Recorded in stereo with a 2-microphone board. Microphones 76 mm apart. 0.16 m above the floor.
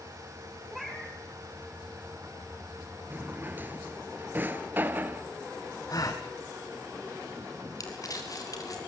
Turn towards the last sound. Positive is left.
turn(degrees=50)  # may be behind; listen again after turning